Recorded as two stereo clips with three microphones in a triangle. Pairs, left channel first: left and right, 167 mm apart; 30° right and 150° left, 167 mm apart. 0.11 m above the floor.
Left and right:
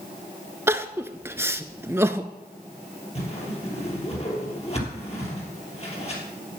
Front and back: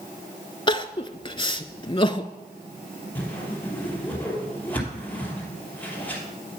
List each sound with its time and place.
0.7 s crying: 30° right, 0.5 m
3.1 s a whoosh: 45° left, 3 m